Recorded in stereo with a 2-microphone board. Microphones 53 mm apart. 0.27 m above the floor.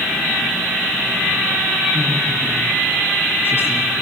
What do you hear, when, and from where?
1.9 s a woman speaking: 65° left (ahead or behind), 4.5 m; by 3.9 s 50° left (ahead or behind), 3.5 m